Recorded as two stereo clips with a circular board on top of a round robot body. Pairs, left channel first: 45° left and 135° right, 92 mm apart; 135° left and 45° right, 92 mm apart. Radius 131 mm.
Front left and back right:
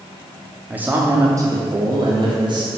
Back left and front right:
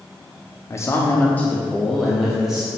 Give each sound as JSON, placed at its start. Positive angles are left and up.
{"t": 0.7, "sound": "a man speaking", "azimuth_deg": 160, "distance_m": 1.0}